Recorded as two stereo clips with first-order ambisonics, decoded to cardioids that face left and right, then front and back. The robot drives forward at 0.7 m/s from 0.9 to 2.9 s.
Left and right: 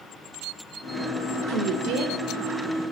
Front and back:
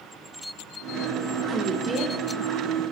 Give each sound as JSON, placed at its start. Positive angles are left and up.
{"t": 1.5, "sound": "a woman speaking", "azimuth_deg": -95, "distance_m": 2.5}